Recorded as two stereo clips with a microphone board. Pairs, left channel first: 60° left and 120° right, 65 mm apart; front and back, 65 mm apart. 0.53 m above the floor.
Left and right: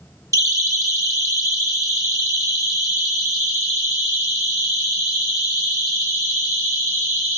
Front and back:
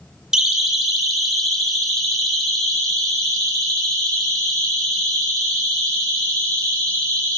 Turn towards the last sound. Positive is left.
turn(degrees=-75)